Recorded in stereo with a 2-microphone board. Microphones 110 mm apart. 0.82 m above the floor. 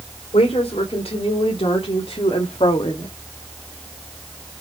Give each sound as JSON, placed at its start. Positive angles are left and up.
{"t": 0.3, "sound": "a woman speaking", "side_deg": 70, "distance_m": 3.0}